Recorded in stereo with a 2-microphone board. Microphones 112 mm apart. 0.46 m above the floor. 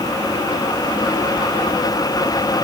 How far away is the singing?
No singing in this recording.